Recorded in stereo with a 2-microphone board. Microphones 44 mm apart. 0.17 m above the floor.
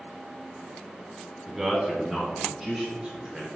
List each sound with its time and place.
1.5 s a man speaking: 10° right (ahead or behind), 1.2 m; by 3.5 s 20° right (ahead or behind), 1.8 m